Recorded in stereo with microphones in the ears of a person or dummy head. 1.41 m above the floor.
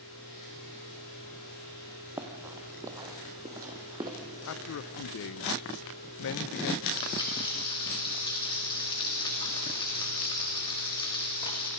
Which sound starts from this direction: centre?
Running footsteps, at 2.2 s.